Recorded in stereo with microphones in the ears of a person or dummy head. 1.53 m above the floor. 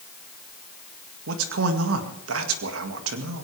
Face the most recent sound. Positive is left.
turn(degrees=-80)